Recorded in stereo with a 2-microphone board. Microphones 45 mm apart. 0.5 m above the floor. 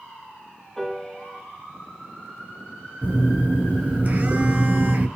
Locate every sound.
0.8 s a piano: 10° left (ahead or behind), 2 m
3.0 s a phone buzzing: 40° right (ahead or behind), 1.4 m